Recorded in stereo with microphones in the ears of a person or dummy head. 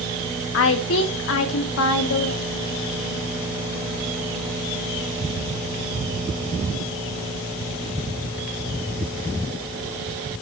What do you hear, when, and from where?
0.5 s a woman speaking: 75° left (ahead or behind), 1.9 m